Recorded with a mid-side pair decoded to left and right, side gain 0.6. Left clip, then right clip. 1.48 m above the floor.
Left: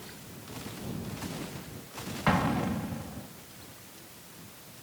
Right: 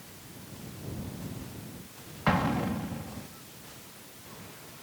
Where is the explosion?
5° left.